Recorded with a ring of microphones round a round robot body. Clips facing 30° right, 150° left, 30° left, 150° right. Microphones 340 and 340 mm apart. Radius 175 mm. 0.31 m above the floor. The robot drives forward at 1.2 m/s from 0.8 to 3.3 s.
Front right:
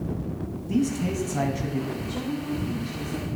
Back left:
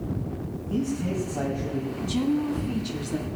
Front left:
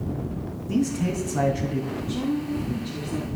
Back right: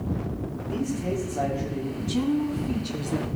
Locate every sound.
0.7 s a man speaking: 15° left, 4 m; by 1.9 s 20° left, 2.5 m
2.0 s a woman speaking: 175° left, 2.5 m; by 3.3 s straight behind, 4 m